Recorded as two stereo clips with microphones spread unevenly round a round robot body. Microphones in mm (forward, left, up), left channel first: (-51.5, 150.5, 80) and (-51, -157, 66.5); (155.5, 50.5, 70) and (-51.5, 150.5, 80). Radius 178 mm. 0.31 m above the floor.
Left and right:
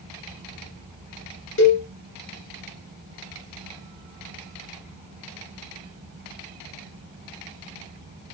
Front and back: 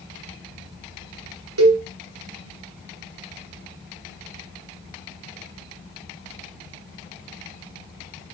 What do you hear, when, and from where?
1.6 s a cowbell: 140° left, 2.5 m